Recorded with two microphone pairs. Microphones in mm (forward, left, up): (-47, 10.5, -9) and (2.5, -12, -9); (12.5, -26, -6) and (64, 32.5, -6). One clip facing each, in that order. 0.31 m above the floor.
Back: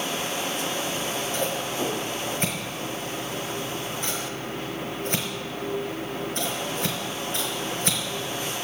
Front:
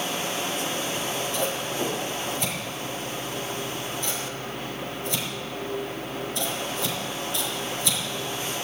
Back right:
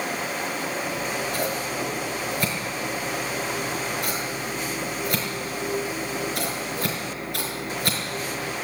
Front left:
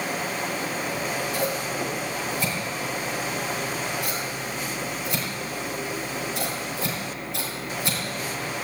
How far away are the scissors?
About 4.5 m.